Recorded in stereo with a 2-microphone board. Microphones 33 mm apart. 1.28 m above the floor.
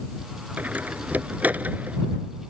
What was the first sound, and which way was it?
A door slam, 60° right (ahead or behind).